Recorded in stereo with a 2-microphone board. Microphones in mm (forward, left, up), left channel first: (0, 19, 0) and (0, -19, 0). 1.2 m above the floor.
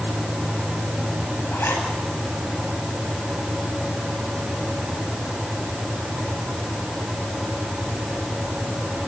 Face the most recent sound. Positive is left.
turn(degrees=85)